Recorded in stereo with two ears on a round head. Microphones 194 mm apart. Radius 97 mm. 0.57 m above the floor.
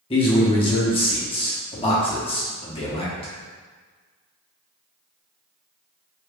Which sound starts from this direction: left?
A man speaking, at 0.1 s.